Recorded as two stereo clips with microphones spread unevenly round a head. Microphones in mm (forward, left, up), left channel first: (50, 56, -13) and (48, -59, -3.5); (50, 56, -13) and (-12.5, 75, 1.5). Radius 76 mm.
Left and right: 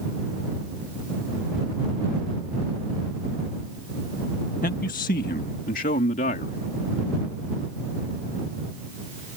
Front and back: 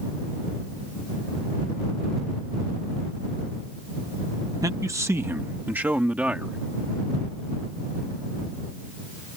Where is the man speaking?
130° left; by 6.6 s 95° left.